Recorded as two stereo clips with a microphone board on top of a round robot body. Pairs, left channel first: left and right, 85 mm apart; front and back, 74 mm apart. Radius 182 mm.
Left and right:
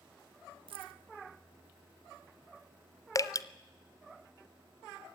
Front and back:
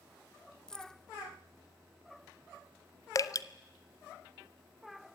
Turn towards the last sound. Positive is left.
turn(degrees=40)